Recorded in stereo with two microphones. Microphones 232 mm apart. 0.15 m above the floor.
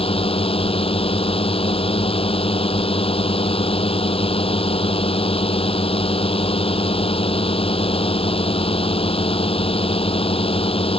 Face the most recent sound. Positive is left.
turn(degrees=25)  # may be behind; listen again after turning